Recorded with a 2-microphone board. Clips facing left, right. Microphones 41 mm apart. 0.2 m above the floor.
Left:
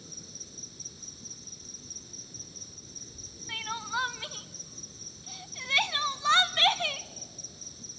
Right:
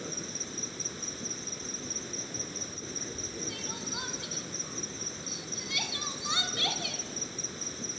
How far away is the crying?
About 0.8 m.